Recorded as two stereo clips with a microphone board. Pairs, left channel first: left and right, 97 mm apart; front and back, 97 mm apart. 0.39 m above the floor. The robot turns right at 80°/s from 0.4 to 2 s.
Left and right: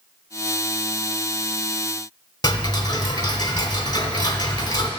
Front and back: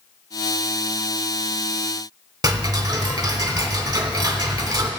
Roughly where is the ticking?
Behind left.